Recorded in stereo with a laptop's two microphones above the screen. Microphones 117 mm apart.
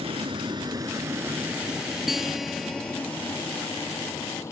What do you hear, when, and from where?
0.0 s a vehicle: 55° right (ahead or behind); by 4.5 s 25° left (ahead or behind)
2.1 s a guitar: 5° right (ahead or behind)